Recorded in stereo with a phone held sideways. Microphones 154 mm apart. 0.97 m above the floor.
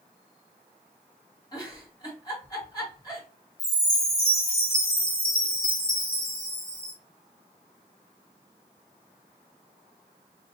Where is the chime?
70° left (ahead or behind), 1.4 m.